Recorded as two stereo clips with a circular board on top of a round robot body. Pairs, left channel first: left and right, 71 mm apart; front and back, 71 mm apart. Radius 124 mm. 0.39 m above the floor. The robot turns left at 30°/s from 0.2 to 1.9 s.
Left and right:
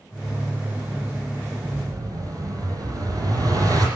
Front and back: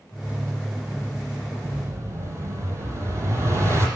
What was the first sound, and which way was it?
An explosion, 120° right.